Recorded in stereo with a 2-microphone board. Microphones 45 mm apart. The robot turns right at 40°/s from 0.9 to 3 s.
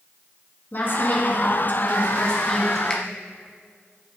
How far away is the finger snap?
About 1.2 m.